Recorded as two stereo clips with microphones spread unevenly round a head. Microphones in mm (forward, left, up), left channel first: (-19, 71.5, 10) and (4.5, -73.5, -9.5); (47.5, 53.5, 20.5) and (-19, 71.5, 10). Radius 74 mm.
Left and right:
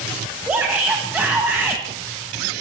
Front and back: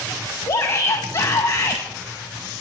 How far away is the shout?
About 1.3 m.